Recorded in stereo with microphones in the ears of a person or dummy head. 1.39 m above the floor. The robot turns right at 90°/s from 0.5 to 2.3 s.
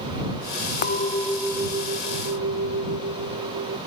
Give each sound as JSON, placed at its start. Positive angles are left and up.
{"t": 0.8, "sound": "a clink", "azimuth_deg": 130}